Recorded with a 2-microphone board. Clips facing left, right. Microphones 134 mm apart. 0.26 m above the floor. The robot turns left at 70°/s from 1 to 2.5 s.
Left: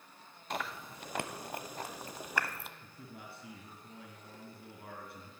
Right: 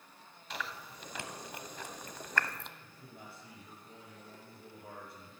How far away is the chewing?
About 0.7 m.